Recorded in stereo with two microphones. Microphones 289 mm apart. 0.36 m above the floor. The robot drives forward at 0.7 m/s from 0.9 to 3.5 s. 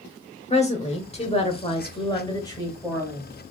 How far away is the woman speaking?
About 0.8 m.